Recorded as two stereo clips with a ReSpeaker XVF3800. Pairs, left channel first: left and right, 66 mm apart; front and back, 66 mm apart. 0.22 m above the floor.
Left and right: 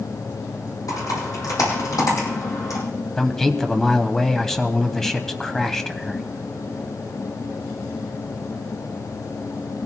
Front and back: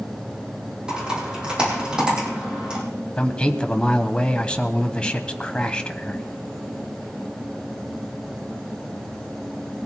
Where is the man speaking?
20° left, 1.0 m.